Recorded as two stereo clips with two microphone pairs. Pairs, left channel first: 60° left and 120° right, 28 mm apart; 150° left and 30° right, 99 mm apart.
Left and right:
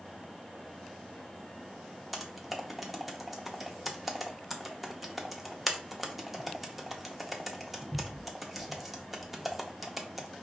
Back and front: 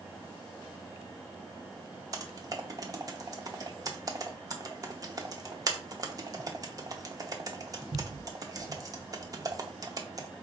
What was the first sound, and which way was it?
Typing on a keyboard, 30° right.